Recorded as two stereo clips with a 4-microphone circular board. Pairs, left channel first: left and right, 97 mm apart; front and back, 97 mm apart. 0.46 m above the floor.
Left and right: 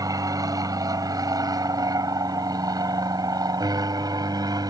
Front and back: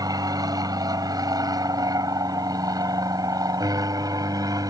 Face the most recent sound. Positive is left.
turn(degrees=-135)